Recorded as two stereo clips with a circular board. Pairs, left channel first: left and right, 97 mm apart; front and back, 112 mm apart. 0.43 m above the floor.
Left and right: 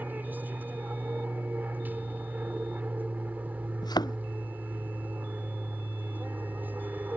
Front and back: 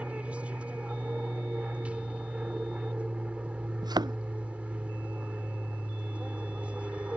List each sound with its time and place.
0.0 s an aircraft: 120° right
3.8 s a thud: 130° left